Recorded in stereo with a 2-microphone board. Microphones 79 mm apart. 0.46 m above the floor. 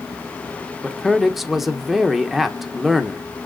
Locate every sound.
0.8 s a man speaking: 5° right (ahead or behind), 0.8 m